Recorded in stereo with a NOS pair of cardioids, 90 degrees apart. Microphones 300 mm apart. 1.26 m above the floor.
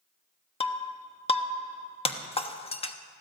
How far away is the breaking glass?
About 1.2 m.